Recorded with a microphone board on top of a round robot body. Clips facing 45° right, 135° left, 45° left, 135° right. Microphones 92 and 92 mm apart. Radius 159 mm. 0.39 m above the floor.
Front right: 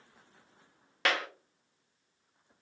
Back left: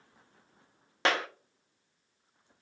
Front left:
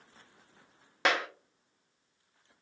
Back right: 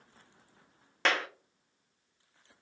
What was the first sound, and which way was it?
A clap, 110° left.